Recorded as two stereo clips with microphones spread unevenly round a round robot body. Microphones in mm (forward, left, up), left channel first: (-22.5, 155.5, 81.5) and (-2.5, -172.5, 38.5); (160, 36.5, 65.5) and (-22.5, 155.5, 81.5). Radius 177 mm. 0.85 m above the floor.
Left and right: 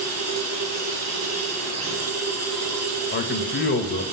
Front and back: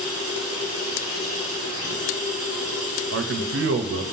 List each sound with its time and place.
0.0 s running water: 40° right, 1.5 m
3.1 s a man speaking: 155° left, 0.8 m